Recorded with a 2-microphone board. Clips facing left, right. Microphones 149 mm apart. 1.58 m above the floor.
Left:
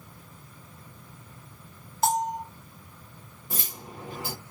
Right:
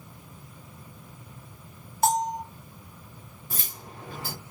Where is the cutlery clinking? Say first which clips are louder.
Left 3 dB; 20° left (ahead or behind), 1.4 m.